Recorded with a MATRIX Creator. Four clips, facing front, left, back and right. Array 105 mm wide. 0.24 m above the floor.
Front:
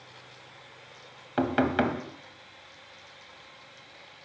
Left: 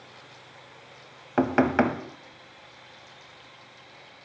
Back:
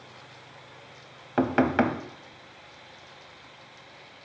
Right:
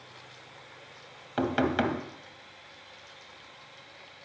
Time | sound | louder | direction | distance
1.4 | knocking | left 5 dB, back 2 dB | 115° left | 0.7 m